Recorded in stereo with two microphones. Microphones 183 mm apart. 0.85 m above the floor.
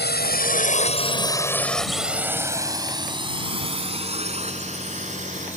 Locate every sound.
0.0 s a drone: 65° left (ahead or behind); by 5.6 s 40° right (ahead or behind)